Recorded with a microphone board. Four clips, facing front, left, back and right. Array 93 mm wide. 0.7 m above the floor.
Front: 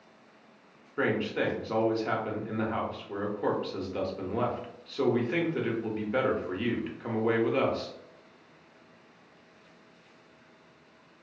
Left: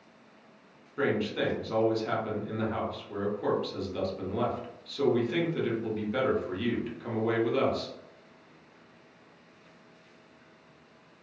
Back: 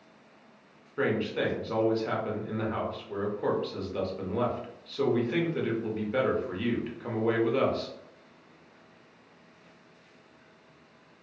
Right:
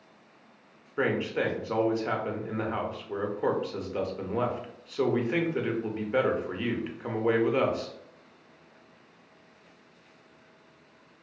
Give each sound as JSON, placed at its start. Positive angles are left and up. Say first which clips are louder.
{"t": 1.0, "sound": "a man speaking", "louder": "right 1 dB, even", "azimuth_deg": -75, "distance_m": 0.6}